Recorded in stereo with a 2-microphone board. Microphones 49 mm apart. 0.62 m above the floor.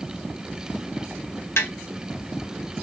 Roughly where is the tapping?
Left.